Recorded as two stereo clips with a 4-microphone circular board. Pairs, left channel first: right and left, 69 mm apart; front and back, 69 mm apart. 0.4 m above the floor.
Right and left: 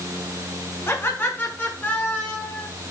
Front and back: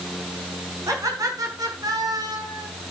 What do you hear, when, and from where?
0.9 s laughter: 145° right, 5 m; by 2.7 s 165° right, 5 m